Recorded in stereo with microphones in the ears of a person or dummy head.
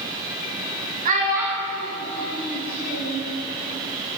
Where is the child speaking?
45° right (ahead or behind), 0.6 m; by 3.2 s 65° left (ahead or behind), 1.8 m.